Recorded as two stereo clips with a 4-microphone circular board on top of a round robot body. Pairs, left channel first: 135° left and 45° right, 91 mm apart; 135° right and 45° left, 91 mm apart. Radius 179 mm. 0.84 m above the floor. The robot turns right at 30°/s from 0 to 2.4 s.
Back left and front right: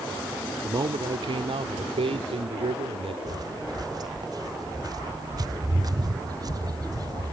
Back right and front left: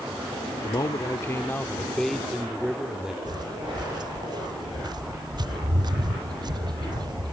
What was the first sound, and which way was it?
A man speaking, 90° right.